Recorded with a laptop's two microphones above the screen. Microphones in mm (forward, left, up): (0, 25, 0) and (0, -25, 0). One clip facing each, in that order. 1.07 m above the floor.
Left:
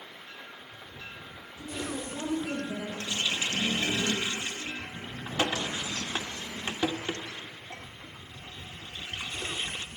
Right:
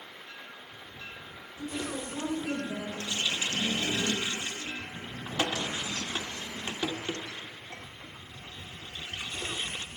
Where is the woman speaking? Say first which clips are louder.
Right 1 dB; 25° right (ahead or behind), 5 m.